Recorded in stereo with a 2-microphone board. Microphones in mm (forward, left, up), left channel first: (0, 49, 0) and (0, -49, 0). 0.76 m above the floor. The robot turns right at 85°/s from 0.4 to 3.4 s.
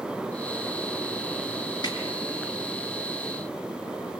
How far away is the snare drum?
About 7 m.